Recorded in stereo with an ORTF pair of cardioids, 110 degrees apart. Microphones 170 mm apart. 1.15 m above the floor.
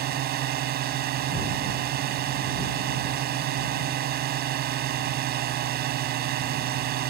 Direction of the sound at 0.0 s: 70° right.